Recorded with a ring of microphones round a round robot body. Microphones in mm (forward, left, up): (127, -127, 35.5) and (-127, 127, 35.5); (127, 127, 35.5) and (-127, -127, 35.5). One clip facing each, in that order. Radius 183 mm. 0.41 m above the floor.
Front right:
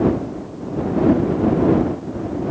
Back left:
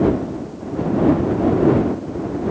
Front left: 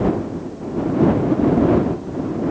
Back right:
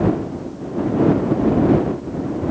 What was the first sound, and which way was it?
Only background noise.